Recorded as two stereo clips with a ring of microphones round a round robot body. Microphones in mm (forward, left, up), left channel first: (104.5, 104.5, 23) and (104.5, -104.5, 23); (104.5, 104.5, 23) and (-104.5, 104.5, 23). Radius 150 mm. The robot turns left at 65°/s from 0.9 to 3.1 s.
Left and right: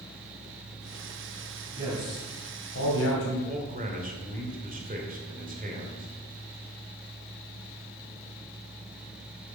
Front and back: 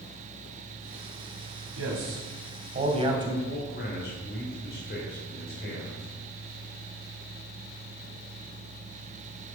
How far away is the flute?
I don't hear a flute.